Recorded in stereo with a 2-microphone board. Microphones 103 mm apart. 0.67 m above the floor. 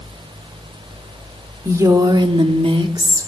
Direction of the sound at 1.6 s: 25° right (ahead or behind).